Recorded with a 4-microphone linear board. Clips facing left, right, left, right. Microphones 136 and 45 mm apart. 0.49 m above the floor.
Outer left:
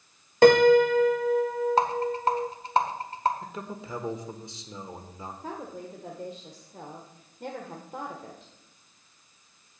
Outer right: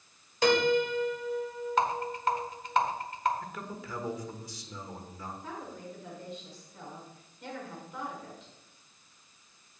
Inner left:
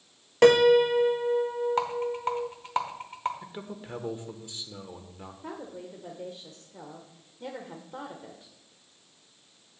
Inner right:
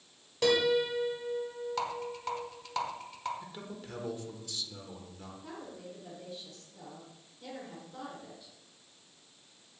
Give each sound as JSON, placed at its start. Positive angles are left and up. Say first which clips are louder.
{"t": 0.4, "sound": "a piano", "louder": "outer left 9 dB, inner left 9 dB", "side_deg": 55, "distance_m": 0.5}
{"t": 1.8, "sound": "a rattle", "louder": "outer left 4 dB, inner left 7 dB", "side_deg": 35, "distance_m": 1.3}
{"t": 3.4, "sound": "a man speaking", "louder": "outer left 3 dB, inner left 4 dB", "side_deg": 25, "distance_m": 1.2}
{"t": 5.4, "sound": "a woman speaking", "louder": "outer left 4 dB, inner left 6 dB", "side_deg": 45, "distance_m": 1.3}